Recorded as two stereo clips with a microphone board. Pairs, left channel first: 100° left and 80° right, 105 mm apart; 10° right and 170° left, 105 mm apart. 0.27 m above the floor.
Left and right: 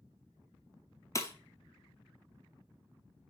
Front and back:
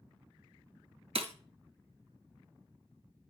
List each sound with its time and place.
1.1 s breaking glass: 160° left, 0.8 m